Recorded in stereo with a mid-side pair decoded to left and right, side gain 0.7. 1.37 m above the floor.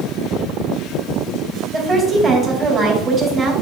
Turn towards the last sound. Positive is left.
turn(degrees=-25)